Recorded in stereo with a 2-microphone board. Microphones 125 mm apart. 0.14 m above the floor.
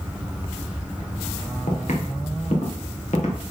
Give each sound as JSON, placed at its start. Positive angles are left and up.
{"t": 1.7, "sound": "footsteps", "side_deg": 75, "distance_m": 3.0}